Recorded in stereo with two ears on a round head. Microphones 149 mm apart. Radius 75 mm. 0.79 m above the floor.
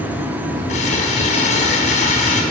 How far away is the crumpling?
About 2.5 m.